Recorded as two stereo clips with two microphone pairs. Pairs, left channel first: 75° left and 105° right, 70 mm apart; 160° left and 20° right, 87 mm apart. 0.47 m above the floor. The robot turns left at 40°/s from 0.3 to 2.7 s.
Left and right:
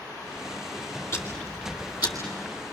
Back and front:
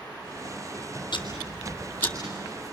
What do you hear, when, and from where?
1.1 s ticking: 130° left, 3.5 m; by 2.1 s 90° left, 3.5 m